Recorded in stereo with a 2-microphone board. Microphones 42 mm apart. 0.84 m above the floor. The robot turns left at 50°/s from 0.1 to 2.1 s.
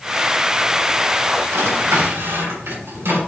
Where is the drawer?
75° right (ahead or behind), 3 m.